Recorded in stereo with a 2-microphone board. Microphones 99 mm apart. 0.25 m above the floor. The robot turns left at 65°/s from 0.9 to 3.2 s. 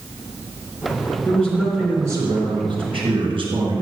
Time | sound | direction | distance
1.2 | a man speaking | 20° left | 3.5 m